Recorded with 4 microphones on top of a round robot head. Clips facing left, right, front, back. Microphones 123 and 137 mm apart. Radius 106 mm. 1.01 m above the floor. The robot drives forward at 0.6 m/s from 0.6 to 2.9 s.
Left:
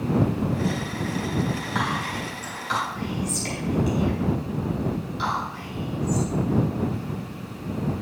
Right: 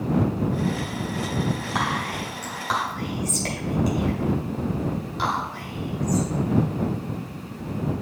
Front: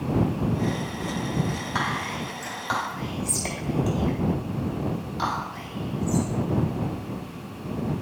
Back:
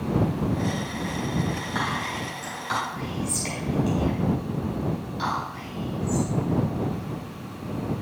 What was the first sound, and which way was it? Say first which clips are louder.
Whispering: right 1 dB, even; 40° right.